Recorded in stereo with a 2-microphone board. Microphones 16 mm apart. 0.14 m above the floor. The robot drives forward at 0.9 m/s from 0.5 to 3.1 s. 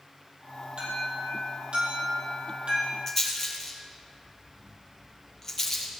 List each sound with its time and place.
0.8 s an alarm: 70° right (ahead or behind), 4.5 m
3.1 s a rattle: 20° left (ahead or behind), 2.5 m